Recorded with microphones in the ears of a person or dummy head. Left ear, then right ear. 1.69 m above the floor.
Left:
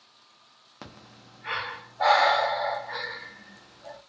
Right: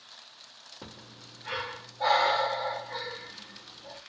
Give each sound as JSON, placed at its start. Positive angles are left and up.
{"t": 0.8, "sound": "breathing", "side_deg": 55, "distance_m": 1.0}